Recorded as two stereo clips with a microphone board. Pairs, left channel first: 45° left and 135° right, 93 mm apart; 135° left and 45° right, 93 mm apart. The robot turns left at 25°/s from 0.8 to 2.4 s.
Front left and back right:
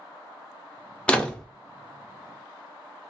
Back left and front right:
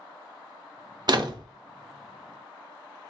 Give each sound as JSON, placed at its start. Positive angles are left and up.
{"t": 1.1, "sound": "a door slam", "azimuth_deg": -30, "distance_m": 0.5}